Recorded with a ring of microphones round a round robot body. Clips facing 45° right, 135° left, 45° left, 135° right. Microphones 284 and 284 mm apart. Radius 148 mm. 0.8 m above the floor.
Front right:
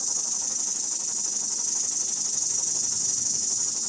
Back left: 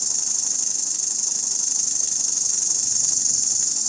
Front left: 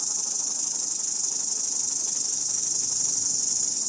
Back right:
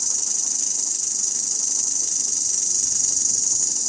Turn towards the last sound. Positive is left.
turn(degrees=170)